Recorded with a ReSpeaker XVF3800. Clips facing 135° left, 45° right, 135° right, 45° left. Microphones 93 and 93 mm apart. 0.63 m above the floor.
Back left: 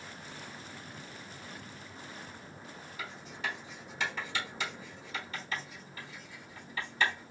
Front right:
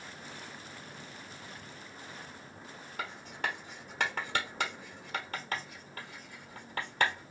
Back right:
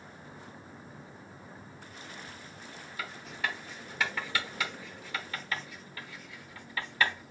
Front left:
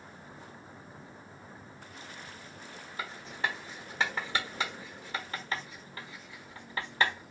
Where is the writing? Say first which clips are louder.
Front right 3 dB, front left 1 dB; 15° right, 1.1 m.